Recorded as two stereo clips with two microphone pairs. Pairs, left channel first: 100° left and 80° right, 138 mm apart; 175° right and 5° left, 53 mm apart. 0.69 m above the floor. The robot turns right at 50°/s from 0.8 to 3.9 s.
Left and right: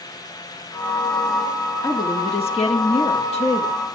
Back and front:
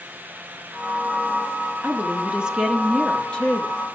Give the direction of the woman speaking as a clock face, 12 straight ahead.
11 o'clock.